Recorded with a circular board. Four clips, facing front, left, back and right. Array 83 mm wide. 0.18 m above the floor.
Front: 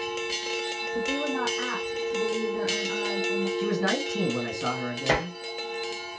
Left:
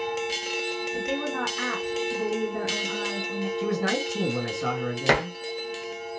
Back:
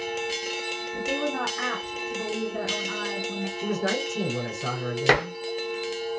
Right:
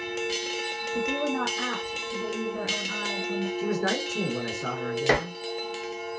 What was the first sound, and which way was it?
A woman speaking, 120° left.